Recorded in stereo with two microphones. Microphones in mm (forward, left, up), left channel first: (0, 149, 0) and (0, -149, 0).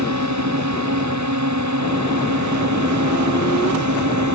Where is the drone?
75° right (ahead or behind); by 4.3 s 80° right.